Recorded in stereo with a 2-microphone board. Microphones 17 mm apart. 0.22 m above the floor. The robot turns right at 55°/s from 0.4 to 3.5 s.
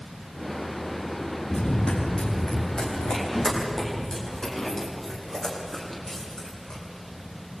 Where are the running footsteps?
55° left (ahead or behind), 8 m; by 6.8 s 30° left (ahead or behind), 8 m.